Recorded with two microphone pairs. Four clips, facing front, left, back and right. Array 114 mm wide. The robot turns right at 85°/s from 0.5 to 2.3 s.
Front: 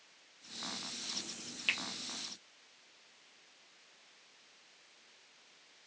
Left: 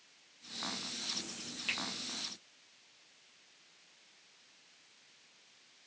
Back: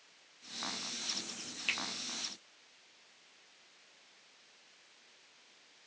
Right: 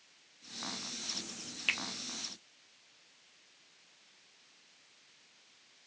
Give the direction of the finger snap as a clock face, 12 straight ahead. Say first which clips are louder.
Right 4 dB, front 1 dB; 2 o'clock.